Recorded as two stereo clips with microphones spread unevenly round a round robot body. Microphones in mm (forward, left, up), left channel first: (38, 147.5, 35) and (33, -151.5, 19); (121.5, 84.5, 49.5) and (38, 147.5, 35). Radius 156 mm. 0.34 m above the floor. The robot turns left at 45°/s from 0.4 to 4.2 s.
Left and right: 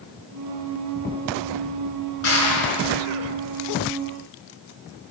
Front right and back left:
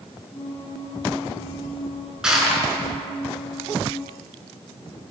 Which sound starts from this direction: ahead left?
Crushing, at 2.2 s.